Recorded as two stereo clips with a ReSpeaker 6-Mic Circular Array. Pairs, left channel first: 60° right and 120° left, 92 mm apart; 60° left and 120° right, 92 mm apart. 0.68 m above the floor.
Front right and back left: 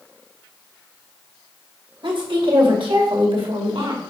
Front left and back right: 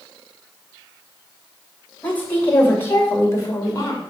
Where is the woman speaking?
130° left, 2.5 m; by 4.0 s 105° left, 2 m.